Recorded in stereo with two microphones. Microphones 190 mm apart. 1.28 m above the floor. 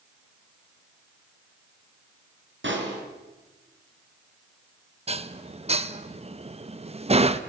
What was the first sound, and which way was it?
A pop, 80° right.